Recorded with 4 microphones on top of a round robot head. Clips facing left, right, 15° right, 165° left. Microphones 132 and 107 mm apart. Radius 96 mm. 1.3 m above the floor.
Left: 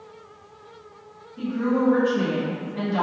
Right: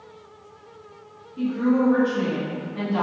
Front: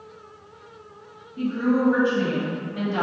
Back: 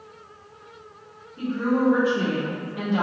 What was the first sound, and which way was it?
A woman speaking, 50° right.